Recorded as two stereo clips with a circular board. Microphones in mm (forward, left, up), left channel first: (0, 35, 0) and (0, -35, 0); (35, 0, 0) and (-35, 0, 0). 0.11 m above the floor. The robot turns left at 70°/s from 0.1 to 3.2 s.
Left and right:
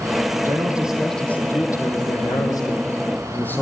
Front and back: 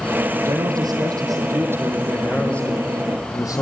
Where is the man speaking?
135° right, 4 m; by 3.6 s 25° left, 4 m.